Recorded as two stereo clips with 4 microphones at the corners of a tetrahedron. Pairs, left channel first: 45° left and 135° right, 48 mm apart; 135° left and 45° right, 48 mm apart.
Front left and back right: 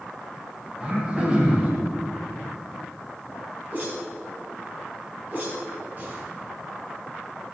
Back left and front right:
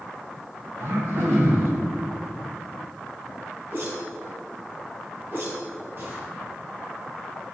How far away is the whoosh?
About 4 m.